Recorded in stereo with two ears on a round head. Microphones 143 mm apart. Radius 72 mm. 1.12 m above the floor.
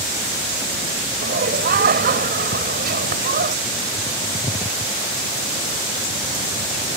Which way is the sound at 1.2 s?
60° right (ahead or behind).